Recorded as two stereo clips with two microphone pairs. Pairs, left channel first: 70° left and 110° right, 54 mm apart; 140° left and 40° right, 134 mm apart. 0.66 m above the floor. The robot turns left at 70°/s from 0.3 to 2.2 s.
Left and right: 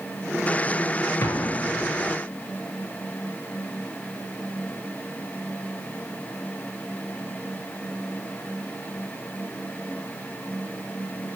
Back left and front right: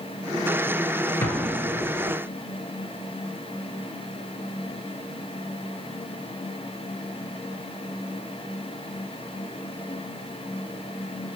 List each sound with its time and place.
1.2 s an explosion: 70° left, 2 m; by 2.1 s 5° left, 2 m